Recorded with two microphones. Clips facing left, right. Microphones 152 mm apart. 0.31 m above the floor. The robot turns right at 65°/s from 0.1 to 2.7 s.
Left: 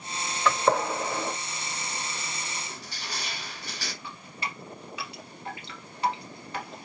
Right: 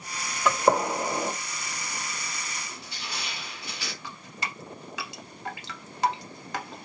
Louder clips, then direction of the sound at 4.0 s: Even; 80° right.